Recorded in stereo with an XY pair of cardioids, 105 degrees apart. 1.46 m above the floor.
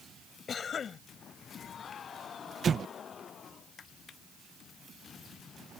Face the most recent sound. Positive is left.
turn(degrees=-45)